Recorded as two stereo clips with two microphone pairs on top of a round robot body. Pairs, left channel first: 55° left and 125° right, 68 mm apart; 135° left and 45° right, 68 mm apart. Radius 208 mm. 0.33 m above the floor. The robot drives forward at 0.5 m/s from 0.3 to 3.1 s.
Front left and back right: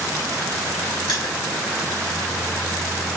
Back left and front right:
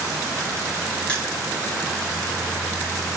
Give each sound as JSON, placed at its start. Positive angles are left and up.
{"t": 1.1, "sound": "crushing", "azimuth_deg": 70, "distance_m": 4.5}